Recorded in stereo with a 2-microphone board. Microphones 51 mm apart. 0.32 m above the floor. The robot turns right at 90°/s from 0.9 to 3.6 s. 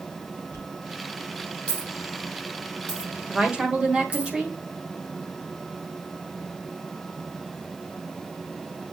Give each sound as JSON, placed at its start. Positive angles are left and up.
{"t": 0.5, "sound": "a dropped coin", "side_deg": 85, "distance_m": 4.5}
{"t": 3.3, "sound": "a woman speaking", "side_deg": -20, "distance_m": 1.3}